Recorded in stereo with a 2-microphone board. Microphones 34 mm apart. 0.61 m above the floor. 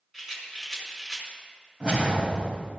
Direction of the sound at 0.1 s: 15° right (ahead or behind).